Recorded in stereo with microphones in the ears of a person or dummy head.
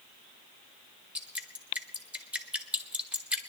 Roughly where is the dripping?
Centre.